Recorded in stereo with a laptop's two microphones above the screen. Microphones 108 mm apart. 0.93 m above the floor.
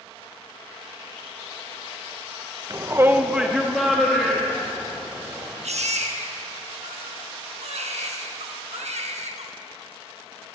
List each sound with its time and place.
2.7 s a shout: 30° right (ahead or behind), 0.6 m; by 5.5 s 5° left (ahead or behind), 3 m
5.6 s a baby crying: 85° right, 1.0 m